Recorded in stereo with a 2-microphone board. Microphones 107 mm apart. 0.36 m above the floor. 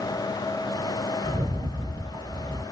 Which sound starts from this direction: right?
A rattle, at 1.2 s.